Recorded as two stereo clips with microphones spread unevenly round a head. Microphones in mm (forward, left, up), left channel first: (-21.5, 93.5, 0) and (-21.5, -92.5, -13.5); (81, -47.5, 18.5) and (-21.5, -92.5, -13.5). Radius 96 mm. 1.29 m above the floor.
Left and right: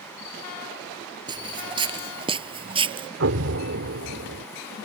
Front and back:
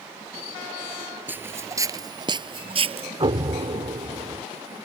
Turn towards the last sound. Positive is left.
turn(degrees=-110)